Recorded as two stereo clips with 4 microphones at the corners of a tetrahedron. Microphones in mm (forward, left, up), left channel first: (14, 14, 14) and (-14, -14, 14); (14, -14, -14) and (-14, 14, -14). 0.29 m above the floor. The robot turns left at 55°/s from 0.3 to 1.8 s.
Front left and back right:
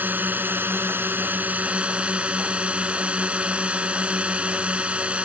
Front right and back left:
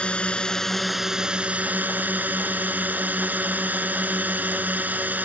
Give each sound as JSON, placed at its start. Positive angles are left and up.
{"t": 0.0, "sound": "a drone", "azimuth_deg": -105}